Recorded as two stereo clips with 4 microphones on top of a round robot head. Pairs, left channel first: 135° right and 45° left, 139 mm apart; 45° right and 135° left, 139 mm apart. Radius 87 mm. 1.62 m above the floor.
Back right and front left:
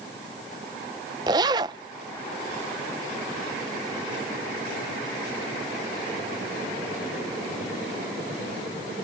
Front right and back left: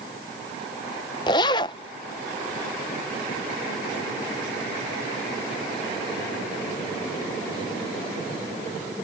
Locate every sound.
1.3 s a zipper: straight ahead